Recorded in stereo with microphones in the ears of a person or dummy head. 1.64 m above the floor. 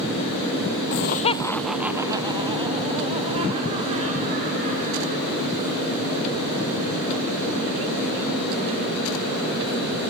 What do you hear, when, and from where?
0.9 s laughter: 50° left (ahead or behind), 0.6 m; by 5.3 s 40° right (ahead or behind), 3.5 m